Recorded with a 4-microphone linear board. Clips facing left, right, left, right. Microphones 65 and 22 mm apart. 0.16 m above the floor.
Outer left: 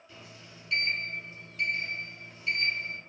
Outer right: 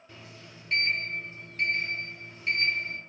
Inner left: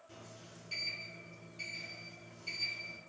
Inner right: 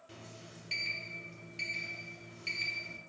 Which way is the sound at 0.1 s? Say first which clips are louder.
Outer right 2 dB, inner right 3 dB; 45° right (ahead or behind).